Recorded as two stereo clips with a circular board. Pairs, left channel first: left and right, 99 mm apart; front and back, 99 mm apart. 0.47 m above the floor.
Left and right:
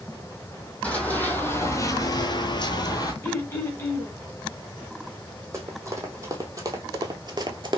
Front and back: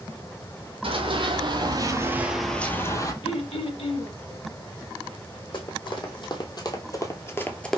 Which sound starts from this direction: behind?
Running footsteps, at 0.8 s.